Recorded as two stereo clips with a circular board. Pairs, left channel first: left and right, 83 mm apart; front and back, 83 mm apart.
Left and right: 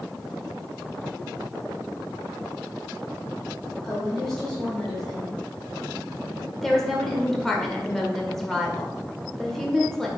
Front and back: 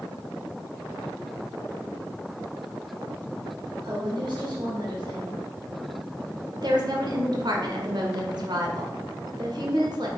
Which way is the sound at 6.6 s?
175° left.